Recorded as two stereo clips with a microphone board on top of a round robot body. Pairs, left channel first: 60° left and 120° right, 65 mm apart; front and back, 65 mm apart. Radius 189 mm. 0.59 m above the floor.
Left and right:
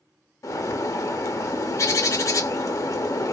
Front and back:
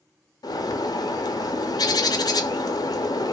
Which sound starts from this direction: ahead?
A bird, at 0.4 s.